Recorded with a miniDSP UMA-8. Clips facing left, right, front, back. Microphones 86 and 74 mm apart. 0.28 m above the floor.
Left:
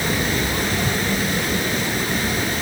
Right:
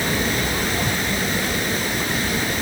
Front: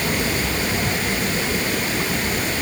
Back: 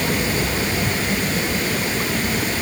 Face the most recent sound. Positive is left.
No sound to turn to.